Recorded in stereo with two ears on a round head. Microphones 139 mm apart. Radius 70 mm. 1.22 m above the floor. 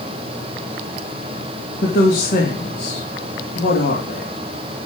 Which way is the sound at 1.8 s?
65° left (ahead or behind).